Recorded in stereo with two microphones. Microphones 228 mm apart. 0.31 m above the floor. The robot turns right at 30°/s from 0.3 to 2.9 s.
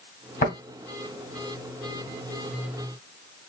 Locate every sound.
0.4 s tapping: 35° left (ahead or behind), 2 m